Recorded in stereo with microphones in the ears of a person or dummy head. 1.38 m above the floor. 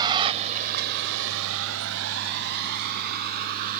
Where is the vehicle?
20° right (ahead or behind); by 3.8 s 50° right (ahead or behind).